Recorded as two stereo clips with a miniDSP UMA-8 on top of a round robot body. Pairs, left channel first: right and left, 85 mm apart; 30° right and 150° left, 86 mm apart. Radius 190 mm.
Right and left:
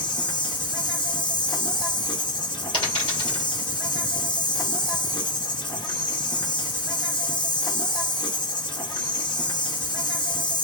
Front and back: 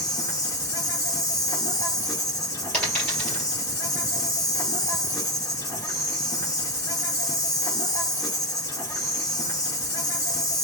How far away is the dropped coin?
About 2.5 m.